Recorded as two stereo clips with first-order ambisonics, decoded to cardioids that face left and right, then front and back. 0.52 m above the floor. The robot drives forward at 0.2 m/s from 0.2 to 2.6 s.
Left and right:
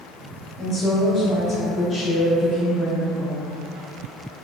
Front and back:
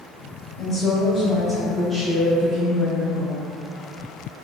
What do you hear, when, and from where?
0.6 s a woman speaking: 45° left, 0.7 m; by 3.5 s 140° left, 0.7 m